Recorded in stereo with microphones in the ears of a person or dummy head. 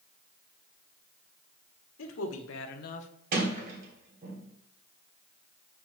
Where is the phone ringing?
I don't hear a phone ringing.